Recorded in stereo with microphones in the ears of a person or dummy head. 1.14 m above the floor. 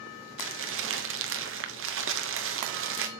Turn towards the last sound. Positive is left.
turn(degrees=-70)  # may be behind; listen again after turning